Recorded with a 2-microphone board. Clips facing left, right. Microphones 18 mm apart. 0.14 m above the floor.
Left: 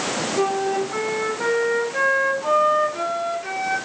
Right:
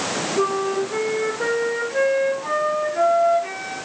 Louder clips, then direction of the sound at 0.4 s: Even; 35° left (ahead or behind).